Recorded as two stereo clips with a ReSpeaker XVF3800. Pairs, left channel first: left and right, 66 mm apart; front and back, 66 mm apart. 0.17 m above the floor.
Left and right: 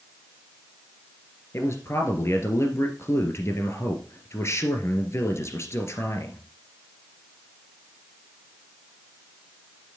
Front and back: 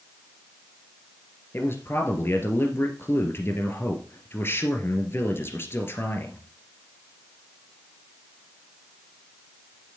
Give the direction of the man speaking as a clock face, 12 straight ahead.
10 o'clock.